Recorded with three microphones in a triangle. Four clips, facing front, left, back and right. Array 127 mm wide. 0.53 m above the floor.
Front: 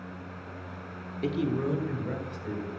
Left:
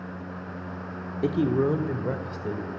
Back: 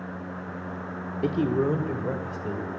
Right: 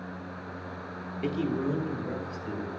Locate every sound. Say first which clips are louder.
1.2 s a man speaking: left 6 dB, back 4 dB; 130° left, 1.1 m; by 2.7 s 135° left, 2.5 m